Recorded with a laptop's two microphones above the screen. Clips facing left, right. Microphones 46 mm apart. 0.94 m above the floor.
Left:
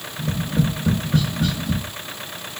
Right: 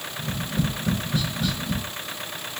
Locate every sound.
0.2 s tapping: 55° left (ahead or behind), 1.6 m